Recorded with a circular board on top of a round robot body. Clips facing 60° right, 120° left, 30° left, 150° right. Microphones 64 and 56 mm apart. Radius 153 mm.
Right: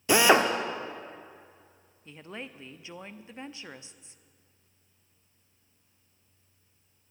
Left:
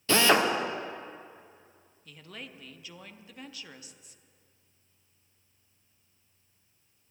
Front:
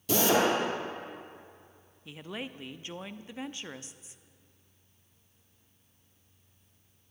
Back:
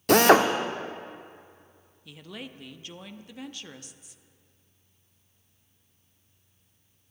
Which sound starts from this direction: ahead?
A woman speaking, at 2.0 s.